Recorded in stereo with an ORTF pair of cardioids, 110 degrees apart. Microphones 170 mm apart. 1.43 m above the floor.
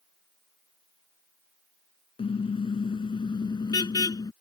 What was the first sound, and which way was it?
A car horn, 35° left.